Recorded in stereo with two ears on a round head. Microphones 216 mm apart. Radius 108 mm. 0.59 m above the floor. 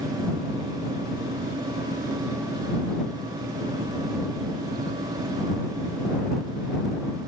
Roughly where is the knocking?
I don't hear knocking.